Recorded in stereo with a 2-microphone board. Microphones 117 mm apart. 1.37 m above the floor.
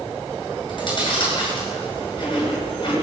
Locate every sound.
0.7 s chewing: 45° left (ahead or behind), 9.5 m